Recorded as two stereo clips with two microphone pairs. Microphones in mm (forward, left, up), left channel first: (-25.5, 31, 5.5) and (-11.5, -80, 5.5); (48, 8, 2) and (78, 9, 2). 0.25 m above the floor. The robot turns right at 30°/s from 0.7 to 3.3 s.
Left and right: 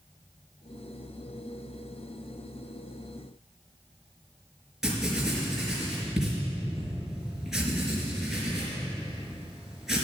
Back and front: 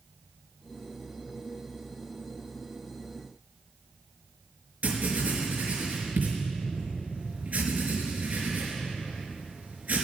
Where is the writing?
Straight ahead, 4.5 m.